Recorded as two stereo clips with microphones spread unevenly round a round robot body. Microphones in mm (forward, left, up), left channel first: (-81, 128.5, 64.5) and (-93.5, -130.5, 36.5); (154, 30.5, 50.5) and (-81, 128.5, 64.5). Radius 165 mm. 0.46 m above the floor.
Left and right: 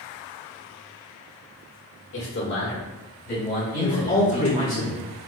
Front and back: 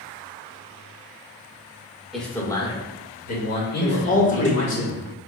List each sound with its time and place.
2.1 s a man speaking: 65° left, 1.5 m; by 4.8 s 10° left, 3 m
3.8 s a man speaking: 25° left, 1.5 m